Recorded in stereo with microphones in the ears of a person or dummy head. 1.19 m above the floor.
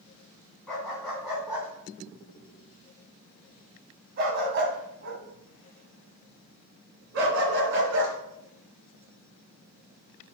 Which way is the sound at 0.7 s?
Centre (ahead or behind).